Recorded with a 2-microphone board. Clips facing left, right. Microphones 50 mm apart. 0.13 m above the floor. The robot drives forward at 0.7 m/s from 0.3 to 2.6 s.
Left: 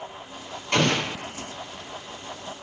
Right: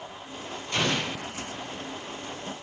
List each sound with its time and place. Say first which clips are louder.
0.7 s an explosion: left 5 dB; 70° left (ahead or behind), 2.0 m; by 1.3 s 65° left (ahead or behind), 2 m